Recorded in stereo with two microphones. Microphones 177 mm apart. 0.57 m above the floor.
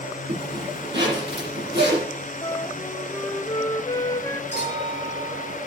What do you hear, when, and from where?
0.3 s a zipper: 85° right, 8 m
2.4 s a flute: 20° left (ahead or behind), 0.6 m
4.5 s a clink: 75° right (ahead or behind), 6.5 m